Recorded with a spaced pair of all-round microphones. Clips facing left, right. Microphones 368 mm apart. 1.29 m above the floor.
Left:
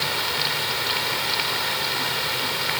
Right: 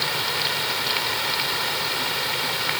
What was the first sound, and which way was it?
Only background noise.